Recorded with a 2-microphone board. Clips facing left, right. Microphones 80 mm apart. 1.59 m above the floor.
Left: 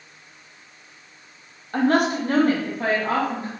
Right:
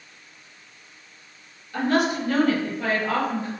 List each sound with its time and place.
1.7 s a woman speaking: 50° left (ahead or behind), 1.2 m; by 3.5 s 35° left (ahead or behind), 2 m